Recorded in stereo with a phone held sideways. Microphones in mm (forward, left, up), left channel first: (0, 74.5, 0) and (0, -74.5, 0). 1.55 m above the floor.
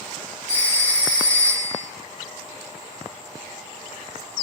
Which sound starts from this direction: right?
A phone ringing, at 0.5 s.